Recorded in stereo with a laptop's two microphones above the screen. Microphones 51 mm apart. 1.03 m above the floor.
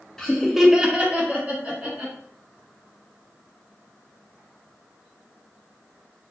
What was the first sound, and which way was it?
Laughter, 10° left (ahead or behind).